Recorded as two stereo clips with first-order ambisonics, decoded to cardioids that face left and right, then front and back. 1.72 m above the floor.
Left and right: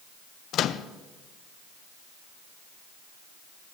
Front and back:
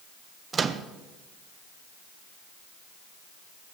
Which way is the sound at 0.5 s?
120° left.